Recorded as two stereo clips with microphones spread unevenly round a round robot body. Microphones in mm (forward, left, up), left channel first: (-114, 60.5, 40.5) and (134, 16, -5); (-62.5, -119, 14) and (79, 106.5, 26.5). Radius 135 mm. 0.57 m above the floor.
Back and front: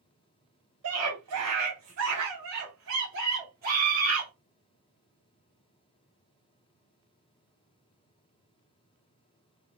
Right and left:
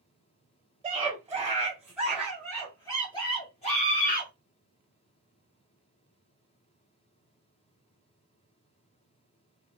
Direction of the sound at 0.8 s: 10° right.